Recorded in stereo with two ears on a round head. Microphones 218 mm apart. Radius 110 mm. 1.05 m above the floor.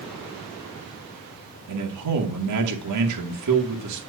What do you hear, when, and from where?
1.7 s a man speaking: 85° right, 2 m